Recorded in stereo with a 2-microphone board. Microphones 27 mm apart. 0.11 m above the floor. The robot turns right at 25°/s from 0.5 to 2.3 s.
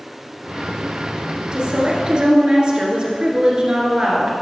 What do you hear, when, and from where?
1.5 s a woman speaking: 30° right (ahead or behind), 2 m; by 4.3 s 35° right (ahead or behind), 2 m